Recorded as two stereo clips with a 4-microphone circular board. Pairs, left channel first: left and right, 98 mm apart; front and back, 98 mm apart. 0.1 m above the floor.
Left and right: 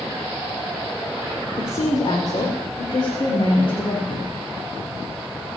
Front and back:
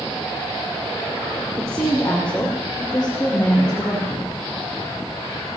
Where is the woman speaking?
85° left, 3 m; by 4.3 s 75° left, 5.5 m.